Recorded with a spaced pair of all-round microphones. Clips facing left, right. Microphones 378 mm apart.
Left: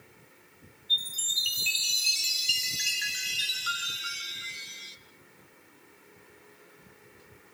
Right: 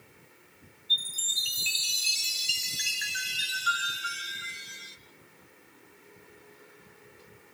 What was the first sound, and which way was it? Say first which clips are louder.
A chime: even; 65° right (ahead or behind).